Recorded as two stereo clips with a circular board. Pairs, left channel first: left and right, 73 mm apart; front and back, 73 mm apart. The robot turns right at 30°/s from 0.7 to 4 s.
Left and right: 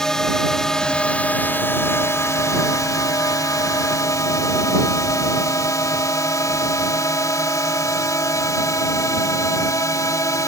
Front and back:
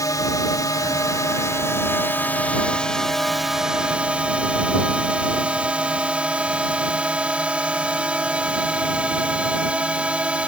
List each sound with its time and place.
0.0 s a drone: 10° left; by 10.5 s 110° left